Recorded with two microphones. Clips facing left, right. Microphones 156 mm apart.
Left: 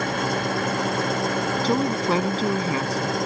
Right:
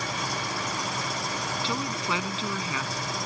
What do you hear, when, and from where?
0.0 s an engine running: 65° left (ahead or behind)
1.6 s a woman speaking: 45° left (ahead or behind)